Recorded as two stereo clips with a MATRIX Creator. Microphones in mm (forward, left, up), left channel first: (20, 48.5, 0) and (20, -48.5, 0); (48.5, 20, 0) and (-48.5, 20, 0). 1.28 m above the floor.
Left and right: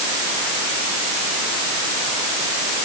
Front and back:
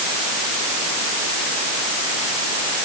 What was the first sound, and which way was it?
Only background noise.